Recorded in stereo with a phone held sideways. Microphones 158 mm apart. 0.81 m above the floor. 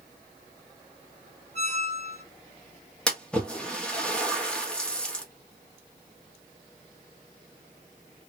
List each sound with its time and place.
1.5 s a squeak: 45° right (ahead or behind), 1.5 m
3.1 s a splash: 5° left (ahead or behind), 1.0 m